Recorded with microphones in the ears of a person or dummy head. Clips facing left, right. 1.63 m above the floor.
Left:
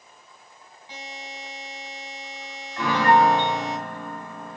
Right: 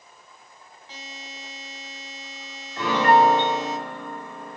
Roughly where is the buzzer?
Centre.